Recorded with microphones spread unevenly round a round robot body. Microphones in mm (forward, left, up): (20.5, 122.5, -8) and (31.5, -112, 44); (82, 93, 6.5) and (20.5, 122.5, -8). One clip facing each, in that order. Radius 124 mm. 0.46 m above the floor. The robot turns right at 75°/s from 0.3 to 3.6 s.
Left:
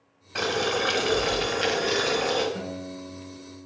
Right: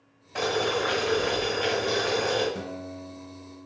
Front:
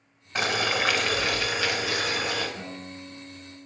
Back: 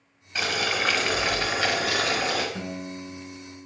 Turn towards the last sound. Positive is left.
turn(degrees=-105)